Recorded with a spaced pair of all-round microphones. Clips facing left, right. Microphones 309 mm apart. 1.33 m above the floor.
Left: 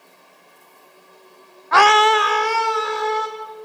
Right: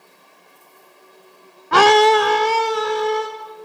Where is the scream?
40° right (ahead or behind), 0.6 m; by 3.3 s 35° right (ahead or behind), 2.5 m.